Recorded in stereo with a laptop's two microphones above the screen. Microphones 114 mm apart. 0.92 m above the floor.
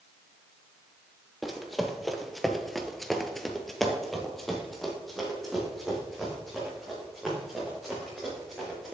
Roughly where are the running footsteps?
Centre.